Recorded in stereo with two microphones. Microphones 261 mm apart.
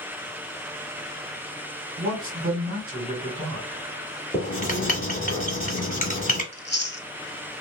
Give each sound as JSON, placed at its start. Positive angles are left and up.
{"t": 2.0, "sound": "a man speaking", "side_deg": -25, "distance_m": 2.0}
{"t": 4.3, "sound": "writing", "side_deg": 30, "distance_m": 1.0}
{"t": 6.5, "sound": "chewing", "side_deg": 40, "distance_m": 0.5}